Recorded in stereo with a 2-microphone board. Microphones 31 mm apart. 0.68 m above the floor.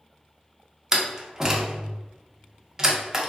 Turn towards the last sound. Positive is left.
turn(degrees=-15)  # may be behind; listen again after turning